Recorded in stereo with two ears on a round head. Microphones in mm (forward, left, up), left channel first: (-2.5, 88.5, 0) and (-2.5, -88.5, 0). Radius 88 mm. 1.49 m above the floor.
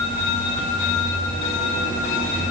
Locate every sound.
Only background noise.